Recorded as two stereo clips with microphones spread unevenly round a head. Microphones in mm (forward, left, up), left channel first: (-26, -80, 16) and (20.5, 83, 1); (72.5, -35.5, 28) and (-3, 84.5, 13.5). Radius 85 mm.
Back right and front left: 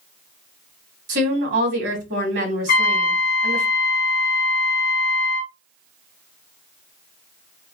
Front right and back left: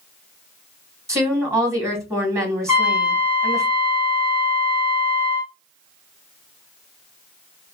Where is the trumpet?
110° right, 0.7 m.